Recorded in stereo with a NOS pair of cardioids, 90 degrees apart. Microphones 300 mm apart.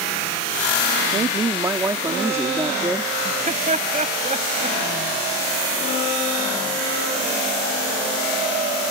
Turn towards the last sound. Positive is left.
turn(degrees=-25)